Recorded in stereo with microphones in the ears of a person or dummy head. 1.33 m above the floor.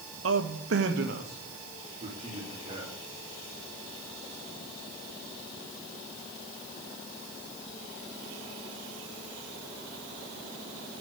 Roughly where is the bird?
I don't hear a bird.